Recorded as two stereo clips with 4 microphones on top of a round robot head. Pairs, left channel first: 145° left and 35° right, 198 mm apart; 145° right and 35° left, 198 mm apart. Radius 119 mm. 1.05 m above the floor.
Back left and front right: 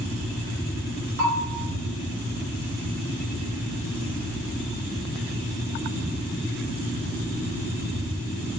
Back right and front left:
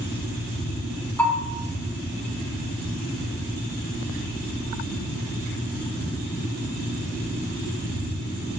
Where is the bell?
65° right, 2.5 m.